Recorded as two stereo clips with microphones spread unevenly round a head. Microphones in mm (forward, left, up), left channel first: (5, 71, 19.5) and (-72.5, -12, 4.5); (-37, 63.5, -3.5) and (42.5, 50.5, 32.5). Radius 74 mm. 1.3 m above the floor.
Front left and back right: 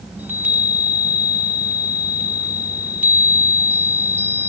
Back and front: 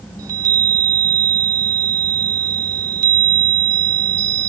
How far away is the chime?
About 1.0 m.